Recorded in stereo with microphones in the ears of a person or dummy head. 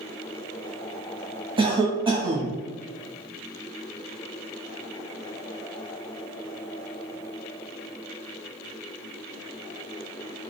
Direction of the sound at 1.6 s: 25° right (ahead or behind).